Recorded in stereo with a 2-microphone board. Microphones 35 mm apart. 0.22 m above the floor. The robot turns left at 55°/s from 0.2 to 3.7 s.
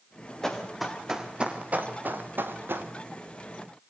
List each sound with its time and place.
0.4 s running footsteps: 15° left (ahead or behind), 5 m; by 2.9 s 85° right, 3 m